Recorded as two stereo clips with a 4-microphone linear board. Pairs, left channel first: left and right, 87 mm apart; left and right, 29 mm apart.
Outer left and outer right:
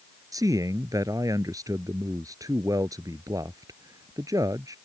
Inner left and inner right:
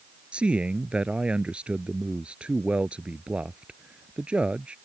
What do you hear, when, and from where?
0.3 s a man speaking: 40° right (ahead or behind)